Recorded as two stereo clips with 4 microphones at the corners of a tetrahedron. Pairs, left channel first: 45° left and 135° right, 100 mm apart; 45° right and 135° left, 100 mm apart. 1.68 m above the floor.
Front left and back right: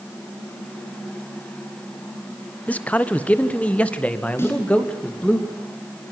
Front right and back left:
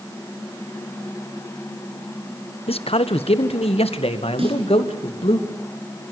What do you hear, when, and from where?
2.7 s a man speaking: 30° right, 1.2 m
4.4 s a snare drum: 110° left, 8.5 m